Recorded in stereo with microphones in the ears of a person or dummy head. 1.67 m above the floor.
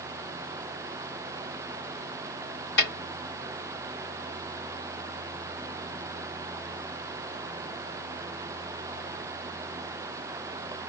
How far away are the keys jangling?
I don't hear keys jangling.